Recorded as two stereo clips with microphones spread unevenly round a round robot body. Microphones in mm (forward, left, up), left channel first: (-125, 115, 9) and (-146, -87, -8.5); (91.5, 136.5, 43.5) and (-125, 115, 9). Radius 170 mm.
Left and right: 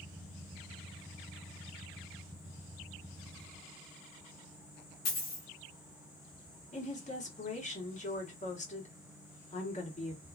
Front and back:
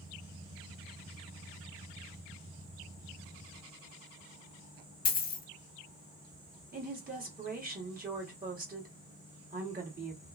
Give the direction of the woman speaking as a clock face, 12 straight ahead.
7 o'clock.